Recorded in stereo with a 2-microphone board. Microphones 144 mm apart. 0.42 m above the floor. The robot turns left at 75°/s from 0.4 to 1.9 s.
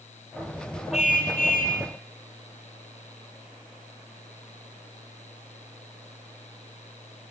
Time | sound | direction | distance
0.9 | a car horn | 130° left | 7 m